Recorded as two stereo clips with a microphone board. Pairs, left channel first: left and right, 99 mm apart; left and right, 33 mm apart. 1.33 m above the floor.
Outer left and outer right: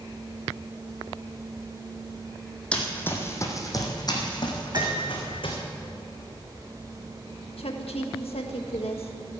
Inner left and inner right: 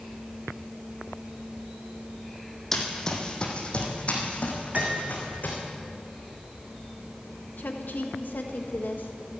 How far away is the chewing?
No chewing in this recording.